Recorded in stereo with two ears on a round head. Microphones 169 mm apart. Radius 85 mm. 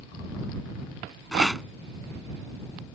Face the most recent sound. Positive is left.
turn(degrees=0)  # may be behind; listen again after turning